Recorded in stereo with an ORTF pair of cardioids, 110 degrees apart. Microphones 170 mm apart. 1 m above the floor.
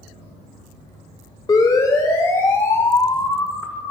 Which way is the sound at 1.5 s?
25° left.